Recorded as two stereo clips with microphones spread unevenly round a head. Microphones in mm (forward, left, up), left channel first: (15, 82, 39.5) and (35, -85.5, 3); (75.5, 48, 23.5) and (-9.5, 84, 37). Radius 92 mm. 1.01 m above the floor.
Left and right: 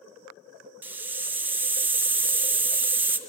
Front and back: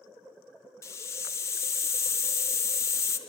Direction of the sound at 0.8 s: 30° right.